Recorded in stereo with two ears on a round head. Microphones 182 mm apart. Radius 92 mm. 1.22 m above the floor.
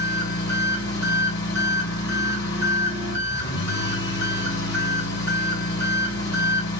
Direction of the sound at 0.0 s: 55° left (ahead or behind).